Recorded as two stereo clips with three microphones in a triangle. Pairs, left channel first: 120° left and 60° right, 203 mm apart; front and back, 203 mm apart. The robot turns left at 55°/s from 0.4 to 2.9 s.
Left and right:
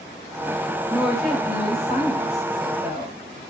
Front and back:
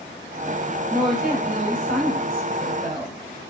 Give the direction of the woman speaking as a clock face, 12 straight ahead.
4 o'clock.